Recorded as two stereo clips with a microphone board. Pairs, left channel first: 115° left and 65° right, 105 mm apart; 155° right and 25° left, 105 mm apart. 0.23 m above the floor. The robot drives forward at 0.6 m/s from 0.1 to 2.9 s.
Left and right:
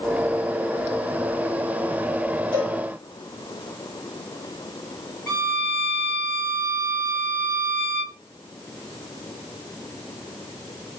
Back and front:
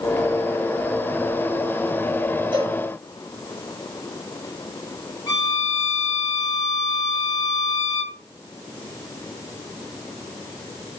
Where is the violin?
165° right, 1.8 m.